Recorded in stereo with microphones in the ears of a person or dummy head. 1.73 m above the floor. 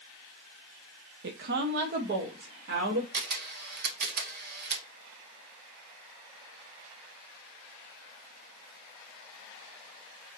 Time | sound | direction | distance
1.2 | a woman speaking | 65° right (ahead or behind) | 0.6 m
3.1 | a camera shutter | 60° right (ahead or behind) | 1.2 m